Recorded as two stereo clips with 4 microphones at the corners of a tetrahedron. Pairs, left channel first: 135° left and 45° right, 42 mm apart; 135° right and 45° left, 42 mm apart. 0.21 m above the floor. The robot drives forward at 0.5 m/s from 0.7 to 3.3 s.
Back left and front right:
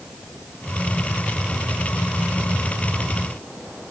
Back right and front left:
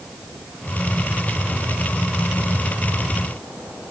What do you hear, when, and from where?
Only background noise.